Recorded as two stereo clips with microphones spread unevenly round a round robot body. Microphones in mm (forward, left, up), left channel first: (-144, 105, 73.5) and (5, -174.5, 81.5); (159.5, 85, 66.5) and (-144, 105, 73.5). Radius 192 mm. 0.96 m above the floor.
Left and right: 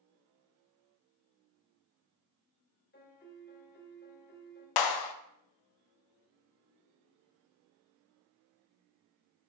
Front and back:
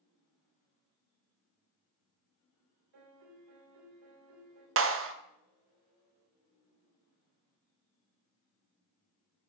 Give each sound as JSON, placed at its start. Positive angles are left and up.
{"t": 2.9, "sound": "a piano", "azimuth_deg": 175, "distance_m": 1.9}
{"t": 4.8, "sound": "a clap", "azimuth_deg": 125, "distance_m": 0.7}